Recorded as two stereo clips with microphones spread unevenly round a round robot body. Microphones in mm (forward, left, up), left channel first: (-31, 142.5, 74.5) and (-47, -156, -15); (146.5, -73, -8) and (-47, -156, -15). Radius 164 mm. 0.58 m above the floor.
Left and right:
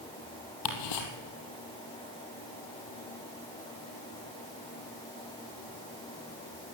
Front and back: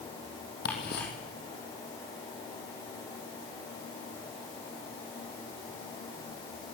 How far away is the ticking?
About 3.5 m.